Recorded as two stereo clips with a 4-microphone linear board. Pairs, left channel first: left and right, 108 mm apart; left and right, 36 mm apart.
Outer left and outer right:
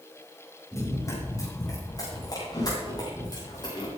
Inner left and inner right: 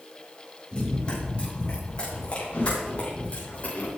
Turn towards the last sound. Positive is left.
turn(degrees=40)  # may be behind; listen again after turning